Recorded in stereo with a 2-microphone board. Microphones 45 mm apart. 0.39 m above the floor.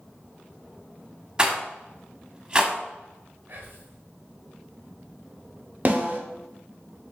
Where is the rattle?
20° right (ahead or behind), 0.8 m.